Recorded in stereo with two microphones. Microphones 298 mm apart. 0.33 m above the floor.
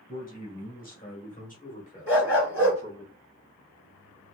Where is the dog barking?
50° left (ahead or behind), 1.4 m.